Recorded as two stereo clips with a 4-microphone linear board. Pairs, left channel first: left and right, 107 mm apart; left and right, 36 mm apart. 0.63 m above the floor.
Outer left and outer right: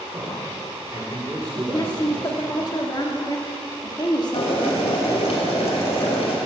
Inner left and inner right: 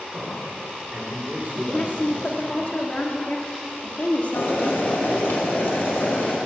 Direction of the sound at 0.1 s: 35° right (ahead or behind).